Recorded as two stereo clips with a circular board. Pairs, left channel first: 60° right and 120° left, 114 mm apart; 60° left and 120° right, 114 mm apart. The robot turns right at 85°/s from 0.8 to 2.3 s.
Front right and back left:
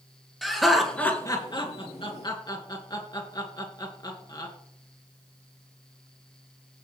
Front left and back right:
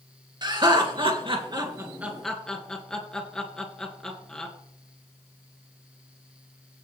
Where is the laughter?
150° right, 2.5 m; by 4.5 s 25° right, 2.5 m.